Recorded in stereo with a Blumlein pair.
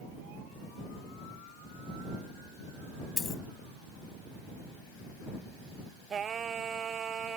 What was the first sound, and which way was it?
A dropped coin, 15° left.